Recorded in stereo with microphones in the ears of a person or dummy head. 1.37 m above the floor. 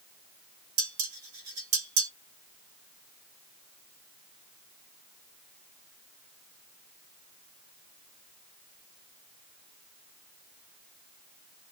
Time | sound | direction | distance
0.8 | dishes clattering | 50° right (ahead or behind) | 1.1 m